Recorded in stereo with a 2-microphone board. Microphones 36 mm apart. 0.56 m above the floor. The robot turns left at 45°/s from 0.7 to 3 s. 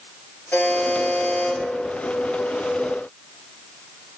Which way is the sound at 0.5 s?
95° left.